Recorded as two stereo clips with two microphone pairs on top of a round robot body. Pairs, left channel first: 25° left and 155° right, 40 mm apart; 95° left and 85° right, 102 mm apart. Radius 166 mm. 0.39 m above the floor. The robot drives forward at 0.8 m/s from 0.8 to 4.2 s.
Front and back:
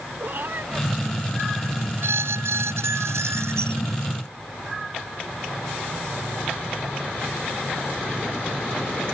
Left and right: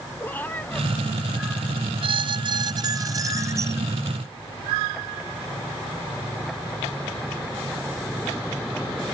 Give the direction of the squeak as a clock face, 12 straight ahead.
4 o'clock.